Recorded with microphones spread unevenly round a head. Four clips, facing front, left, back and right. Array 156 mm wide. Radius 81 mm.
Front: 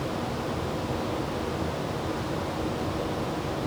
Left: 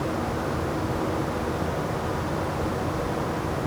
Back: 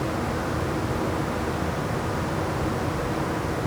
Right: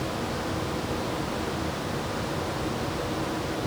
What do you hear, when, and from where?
Only background noise.